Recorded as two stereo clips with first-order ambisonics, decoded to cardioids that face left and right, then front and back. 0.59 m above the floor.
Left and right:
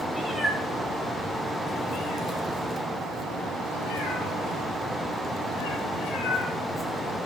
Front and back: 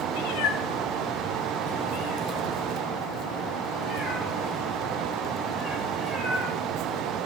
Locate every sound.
0.1 s a cat meowing: 5° left, 1.9 m; by 7.2 s 90° left, 4 m